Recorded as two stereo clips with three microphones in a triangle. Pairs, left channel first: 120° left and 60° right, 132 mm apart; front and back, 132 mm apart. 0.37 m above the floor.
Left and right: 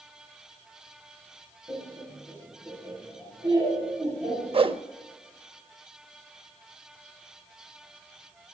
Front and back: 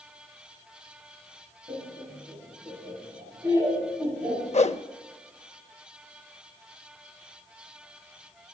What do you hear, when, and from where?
1.7 s laughter: 125° right, 6 m; by 4.4 s 110° right, 8 m
4.5 s a whoosh: 20° right, 0.5 m